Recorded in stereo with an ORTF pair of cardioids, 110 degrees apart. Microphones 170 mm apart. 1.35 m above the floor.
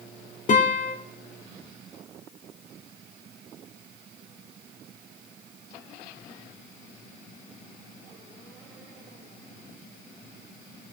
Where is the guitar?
45° left, 3 m.